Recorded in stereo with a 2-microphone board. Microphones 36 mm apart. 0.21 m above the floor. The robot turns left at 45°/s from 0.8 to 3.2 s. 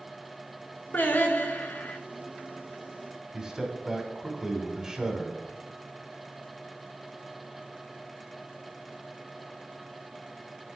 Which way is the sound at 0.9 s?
110° left.